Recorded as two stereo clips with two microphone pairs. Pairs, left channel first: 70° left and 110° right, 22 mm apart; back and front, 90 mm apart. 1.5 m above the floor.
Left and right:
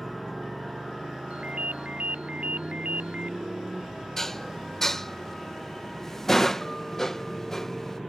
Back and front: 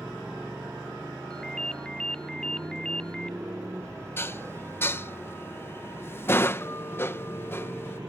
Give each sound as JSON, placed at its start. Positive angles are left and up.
{"t": 0.0, "sound": "a motorcycle", "azimuth_deg": -60}
{"t": 1.3, "sound": "a ringtone", "azimuth_deg": -100}
{"t": 4.2, "sound": "dishes clattering", "azimuth_deg": 135}